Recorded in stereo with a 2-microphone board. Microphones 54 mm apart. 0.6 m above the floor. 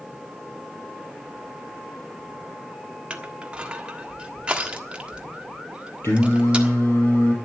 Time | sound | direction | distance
3.1 | crushing | 20° right (ahead or behind) | 1.4 m
6.0 | singing | 50° left (ahead or behind) | 3.5 m